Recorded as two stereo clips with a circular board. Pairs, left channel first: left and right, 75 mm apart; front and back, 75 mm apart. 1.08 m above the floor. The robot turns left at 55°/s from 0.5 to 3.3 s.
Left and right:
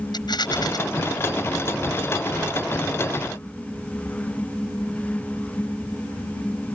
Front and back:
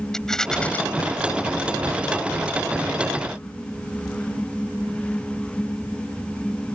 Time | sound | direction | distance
0.1 | a rattle | 80° left | ?